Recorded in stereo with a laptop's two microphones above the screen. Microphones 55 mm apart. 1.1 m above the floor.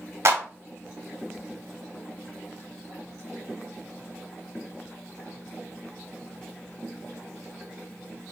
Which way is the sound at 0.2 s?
45° right (ahead or behind).